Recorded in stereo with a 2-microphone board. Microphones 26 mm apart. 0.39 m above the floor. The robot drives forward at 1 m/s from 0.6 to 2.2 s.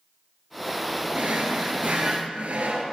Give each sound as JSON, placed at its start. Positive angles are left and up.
{"t": 1.1, "sound": "a drawer", "side_deg": -75, "distance_m": 1.8}